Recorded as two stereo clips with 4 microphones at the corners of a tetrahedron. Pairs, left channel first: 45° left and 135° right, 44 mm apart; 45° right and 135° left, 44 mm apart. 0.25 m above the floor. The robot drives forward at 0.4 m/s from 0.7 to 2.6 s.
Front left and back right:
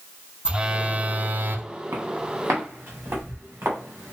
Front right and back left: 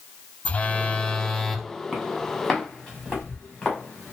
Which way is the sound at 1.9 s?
130° right.